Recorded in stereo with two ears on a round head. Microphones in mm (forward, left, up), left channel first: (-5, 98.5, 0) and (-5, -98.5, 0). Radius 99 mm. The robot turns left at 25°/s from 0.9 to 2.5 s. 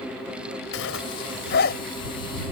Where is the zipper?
65° left (ahead or behind); by 1.8 s 45° left (ahead or behind).